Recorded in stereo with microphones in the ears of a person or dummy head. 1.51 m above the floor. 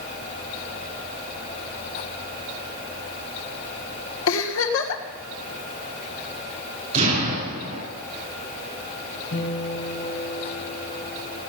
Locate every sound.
4.3 s a giggle: 80° left, 1.7 m
6.9 s an explosion: 35° right (ahead or behind), 9 m
9.3 s a guitar: 70° left (ahead or behind), 5.5 m